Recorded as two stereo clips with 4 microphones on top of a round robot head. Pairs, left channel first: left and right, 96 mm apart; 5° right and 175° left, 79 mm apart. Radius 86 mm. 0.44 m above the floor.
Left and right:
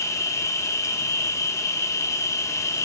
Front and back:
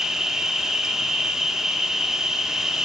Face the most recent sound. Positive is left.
turn(degrees=95)